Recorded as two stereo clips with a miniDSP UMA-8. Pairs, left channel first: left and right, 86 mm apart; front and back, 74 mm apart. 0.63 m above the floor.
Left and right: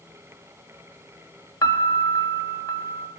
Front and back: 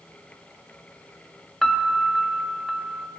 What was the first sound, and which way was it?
A piano, 85° left.